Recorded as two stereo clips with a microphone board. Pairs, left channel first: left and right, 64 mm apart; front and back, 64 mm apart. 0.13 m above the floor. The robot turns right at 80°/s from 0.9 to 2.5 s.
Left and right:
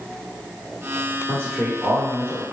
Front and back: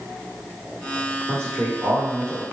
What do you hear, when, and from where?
1.3 s a man speaking: 135° left, 1.8 m; by 2.4 s 135° right, 1.8 m